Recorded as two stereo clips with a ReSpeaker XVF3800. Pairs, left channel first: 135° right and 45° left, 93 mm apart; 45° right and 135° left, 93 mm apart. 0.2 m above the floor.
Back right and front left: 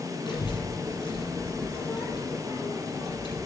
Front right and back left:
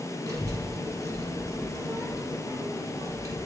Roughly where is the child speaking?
Behind.